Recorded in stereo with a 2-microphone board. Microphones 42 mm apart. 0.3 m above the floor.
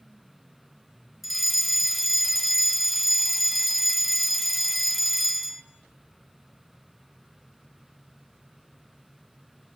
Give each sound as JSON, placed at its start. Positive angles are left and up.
{"t": 1.2, "sound": "a fire alarm", "side_deg": 0, "distance_m": 2.0}